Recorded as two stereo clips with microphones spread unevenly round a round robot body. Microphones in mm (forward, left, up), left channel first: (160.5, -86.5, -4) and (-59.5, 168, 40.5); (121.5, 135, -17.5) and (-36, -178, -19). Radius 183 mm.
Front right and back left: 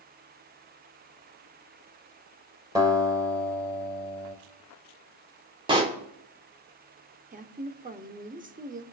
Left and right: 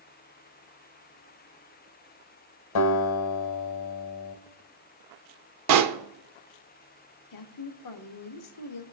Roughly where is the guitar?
Ahead left.